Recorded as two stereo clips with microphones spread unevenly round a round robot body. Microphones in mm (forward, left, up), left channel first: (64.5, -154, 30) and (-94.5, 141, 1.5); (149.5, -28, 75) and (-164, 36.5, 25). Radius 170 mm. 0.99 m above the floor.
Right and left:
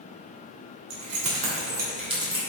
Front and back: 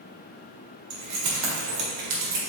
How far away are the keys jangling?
About 2.5 m.